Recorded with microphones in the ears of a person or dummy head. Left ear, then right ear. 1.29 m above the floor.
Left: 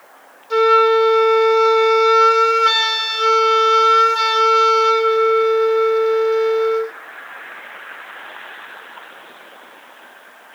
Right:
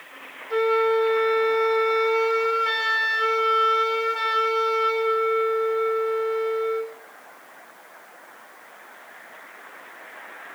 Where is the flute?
45° left (ahead or behind), 2 m.